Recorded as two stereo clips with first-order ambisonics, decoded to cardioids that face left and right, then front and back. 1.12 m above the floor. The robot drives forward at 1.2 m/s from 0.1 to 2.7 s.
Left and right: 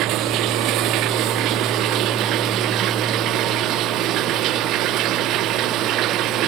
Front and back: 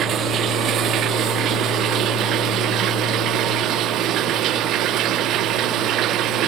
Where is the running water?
125° right; by 6.5 s 135° right.